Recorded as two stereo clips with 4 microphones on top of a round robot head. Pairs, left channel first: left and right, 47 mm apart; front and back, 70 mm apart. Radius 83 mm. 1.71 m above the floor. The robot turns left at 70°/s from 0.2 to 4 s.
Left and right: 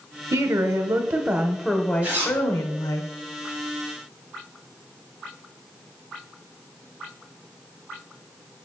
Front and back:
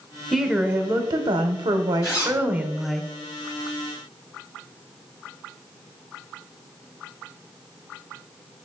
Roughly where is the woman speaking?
Right.